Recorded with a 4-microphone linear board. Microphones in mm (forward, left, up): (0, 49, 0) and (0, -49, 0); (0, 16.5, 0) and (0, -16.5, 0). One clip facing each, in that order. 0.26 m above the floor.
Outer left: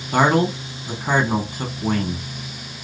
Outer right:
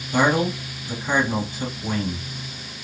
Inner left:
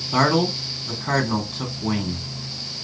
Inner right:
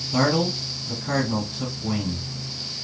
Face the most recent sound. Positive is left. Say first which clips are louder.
# outer left 3 dB, inner left 3 dB
turn(degrees=55)  # may be behind; listen again after turning